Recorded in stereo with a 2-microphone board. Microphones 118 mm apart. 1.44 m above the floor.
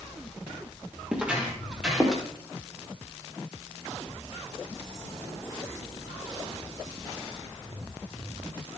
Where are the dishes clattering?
I don't hear dishes clattering.